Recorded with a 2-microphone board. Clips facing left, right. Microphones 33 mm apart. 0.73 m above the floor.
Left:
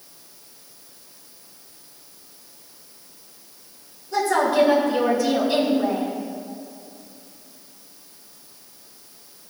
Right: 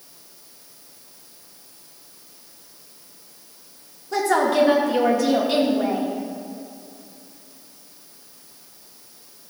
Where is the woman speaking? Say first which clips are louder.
Even; 65° right (ahead or behind), 2 m.